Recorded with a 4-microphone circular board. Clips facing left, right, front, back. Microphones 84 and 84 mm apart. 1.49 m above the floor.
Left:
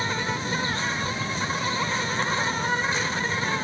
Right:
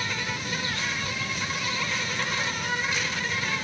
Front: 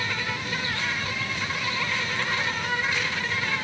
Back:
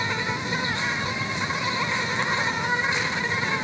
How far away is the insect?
About 0.9 m.